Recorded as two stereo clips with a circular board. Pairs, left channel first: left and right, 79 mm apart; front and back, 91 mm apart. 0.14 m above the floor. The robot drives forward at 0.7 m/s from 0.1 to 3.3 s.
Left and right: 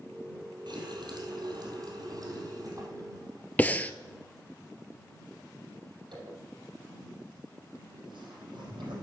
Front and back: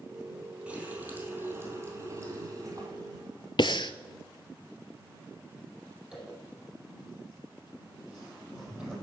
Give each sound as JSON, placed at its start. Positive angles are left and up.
{"t": 0.7, "sound": "a running tap", "azimuth_deg": -105, "distance_m": 3.0}
{"t": 3.6, "sound": "breathing", "azimuth_deg": 20, "distance_m": 0.5}
{"t": 6.1, "sound": "a zipper", "azimuth_deg": -95, "distance_m": 5.0}